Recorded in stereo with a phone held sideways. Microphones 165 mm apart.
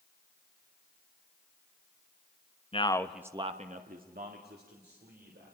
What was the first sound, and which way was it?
A man speaking, 35° left (ahead or behind).